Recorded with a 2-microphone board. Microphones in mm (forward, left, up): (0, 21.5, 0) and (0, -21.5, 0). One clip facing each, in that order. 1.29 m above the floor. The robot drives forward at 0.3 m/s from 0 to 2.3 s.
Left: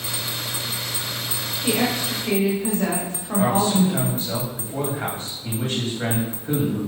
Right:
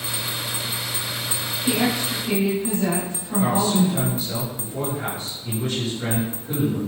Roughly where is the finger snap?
No finger snap in this recording.